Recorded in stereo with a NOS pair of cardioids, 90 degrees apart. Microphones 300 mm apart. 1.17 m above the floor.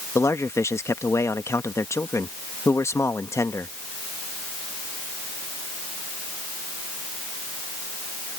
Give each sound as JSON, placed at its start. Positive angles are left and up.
{"t": 0.1, "sound": "a man speaking", "azimuth_deg": 10}